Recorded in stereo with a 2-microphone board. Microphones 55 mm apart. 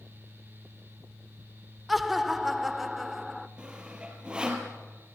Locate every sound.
1.9 s laughter: centre (ahead or behind), 1.3 m
3.6 s sawing: 15° right (ahead or behind), 4 m